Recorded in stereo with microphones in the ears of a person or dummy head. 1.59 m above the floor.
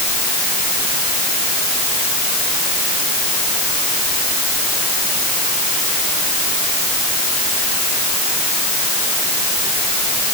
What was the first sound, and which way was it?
Only background noise.